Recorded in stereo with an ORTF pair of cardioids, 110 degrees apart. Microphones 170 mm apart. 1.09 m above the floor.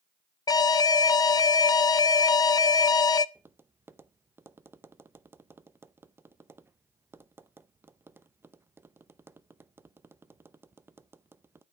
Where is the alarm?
25° left, 0.6 m.